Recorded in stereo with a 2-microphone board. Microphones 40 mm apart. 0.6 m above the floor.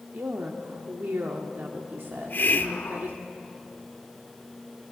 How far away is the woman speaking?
About 1.1 m.